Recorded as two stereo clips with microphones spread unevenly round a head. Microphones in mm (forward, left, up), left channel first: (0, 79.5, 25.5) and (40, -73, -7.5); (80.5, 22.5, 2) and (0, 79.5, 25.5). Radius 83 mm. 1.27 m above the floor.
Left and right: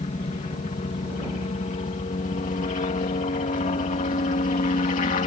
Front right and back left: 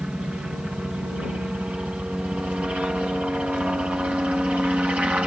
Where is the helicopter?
60° left; by 5.3 s 65° left.